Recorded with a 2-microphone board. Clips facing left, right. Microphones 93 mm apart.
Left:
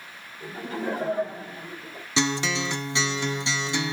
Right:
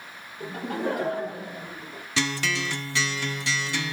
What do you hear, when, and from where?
0.4 s laughter: 60° right (ahead or behind), 6 m; by 2.0 s 75° right (ahead or behind), 7 m
2.2 s a guitar: 20° left (ahead or behind), 0.5 m